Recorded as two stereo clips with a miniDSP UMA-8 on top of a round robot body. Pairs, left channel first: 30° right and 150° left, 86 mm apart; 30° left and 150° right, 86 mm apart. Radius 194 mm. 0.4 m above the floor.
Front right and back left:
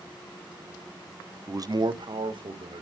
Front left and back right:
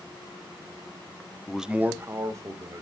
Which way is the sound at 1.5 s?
110° left.